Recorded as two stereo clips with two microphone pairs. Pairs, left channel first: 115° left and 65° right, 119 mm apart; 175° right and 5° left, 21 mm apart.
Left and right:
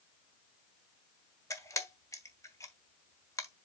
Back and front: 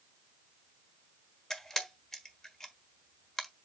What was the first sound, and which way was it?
A camera shutter, 150° left.